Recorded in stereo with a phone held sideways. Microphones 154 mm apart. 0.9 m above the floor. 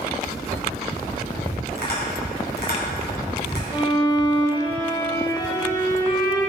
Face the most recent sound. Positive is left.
turn(degrees=30)  # may be behind; listen again after turning